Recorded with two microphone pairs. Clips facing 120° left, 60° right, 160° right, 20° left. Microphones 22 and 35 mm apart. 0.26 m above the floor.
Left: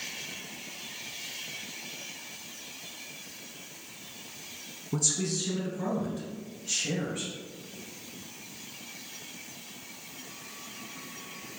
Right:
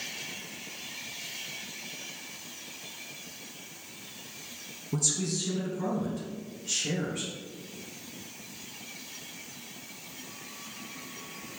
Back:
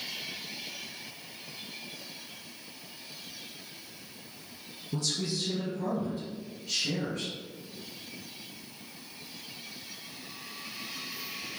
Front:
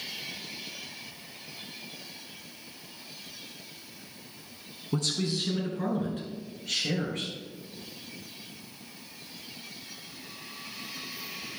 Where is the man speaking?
45° left, 2.5 m; by 7.3 s 25° left, 3.5 m.